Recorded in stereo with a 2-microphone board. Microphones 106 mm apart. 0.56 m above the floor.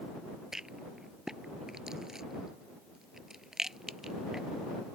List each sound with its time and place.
0.5 s a rattle: 5° right (ahead or behind)